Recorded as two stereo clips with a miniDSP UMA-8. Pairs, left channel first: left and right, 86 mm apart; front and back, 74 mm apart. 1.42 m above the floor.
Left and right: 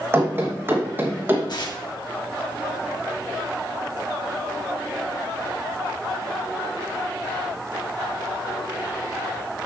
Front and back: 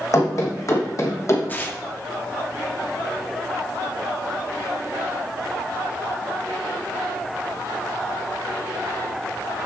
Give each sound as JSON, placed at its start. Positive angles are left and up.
{"t": 0.1, "sound": "running footsteps", "azimuth_deg": -30, "distance_m": 3.0}
{"t": 1.5, "sound": "tearing paper", "azimuth_deg": 60, "distance_m": 1.3}